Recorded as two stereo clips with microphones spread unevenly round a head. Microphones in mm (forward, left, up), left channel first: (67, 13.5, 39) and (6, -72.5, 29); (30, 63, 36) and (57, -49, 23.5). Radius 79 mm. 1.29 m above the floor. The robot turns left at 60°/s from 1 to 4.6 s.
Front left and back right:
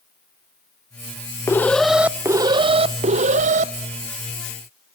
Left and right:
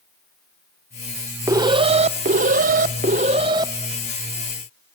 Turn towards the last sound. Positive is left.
turn(degrees=160)